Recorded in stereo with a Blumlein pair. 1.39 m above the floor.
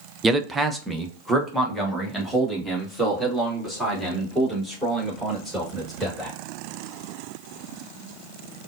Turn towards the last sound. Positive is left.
turn(degrees=-5)